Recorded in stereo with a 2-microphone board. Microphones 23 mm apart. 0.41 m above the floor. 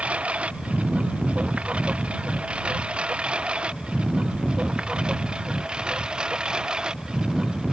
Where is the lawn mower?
60° right (ahead or behind); by 7.7 s 35° right (ahead or behind).